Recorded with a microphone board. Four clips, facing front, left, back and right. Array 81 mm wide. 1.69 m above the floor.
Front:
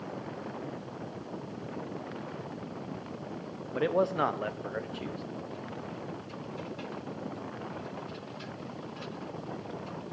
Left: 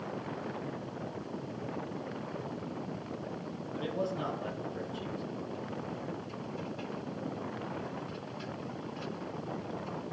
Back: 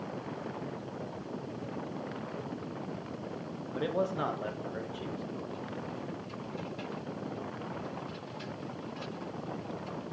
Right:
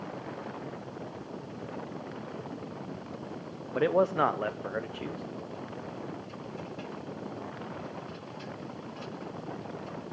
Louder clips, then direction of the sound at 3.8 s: Right 10 dB, front 5 dB; 70° right.